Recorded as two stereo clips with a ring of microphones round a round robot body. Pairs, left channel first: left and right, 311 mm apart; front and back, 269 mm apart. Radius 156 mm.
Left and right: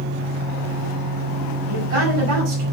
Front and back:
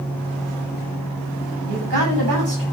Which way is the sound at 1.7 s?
135° right.